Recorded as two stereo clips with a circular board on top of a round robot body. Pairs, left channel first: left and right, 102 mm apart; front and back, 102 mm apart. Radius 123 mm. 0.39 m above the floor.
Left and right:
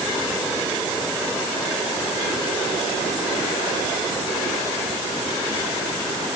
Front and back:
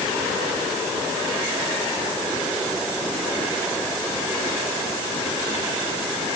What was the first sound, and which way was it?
Only background noise.